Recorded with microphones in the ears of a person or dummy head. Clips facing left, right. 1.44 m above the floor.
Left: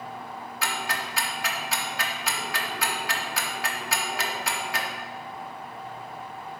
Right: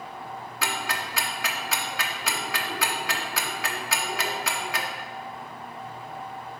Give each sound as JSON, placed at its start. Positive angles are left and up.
{"t": 0.6, "sound": "ticking", "side_deg": -60, "distance_m": 1.1}